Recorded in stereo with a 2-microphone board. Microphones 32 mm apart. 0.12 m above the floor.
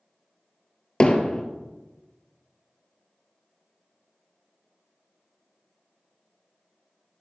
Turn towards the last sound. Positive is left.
turn(degrees=30)  # may be behind; listen again after turning